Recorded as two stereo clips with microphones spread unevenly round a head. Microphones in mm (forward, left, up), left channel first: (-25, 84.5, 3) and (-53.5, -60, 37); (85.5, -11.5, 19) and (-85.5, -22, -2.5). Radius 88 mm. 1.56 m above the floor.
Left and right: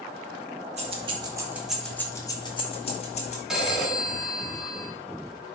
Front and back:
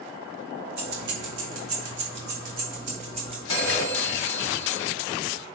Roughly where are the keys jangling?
Behind right.